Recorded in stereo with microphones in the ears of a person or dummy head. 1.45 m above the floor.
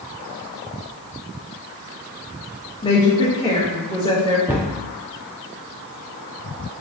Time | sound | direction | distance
2.8 | a woman speaking | 20° left (ahead or behind) | 1.0 m
4.5 | a cupboard door | 10° right (ahead or behind) | 0.5 m